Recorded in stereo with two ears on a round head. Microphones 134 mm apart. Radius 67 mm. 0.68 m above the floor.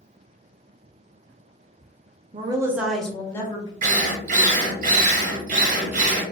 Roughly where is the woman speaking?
Right.